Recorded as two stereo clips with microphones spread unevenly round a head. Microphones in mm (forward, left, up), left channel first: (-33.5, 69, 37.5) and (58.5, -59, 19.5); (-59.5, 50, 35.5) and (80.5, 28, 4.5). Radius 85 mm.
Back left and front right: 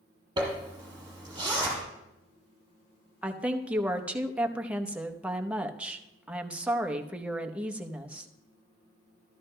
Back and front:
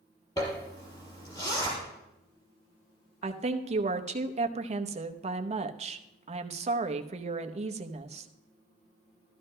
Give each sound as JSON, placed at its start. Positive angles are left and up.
{"t": 0.4, "sound": "a zipper", "azimuth_deg": -120, "distance_m": 5.0}
{"t": 3.2, "sound": "a woman speaking", "azimuth_deg": 25, "distance_m": 0.9}